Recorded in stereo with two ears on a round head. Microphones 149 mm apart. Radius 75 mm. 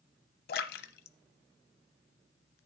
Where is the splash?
60° left (ahead or behind), 0.8 m.